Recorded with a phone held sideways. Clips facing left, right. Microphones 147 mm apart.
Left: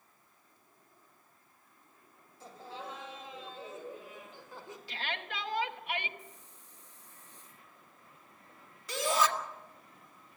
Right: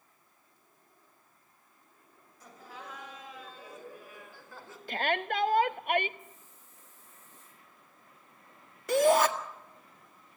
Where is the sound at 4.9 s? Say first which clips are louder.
Right 11 dB; 50° right (ahead or behind), 0.9 m.